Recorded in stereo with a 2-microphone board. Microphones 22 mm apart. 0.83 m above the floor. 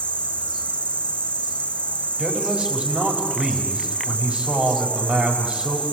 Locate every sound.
0.0 s an insect: 80° left, 2 m
2.2 s a man speaking: 60° right (ahead or behind), 5 m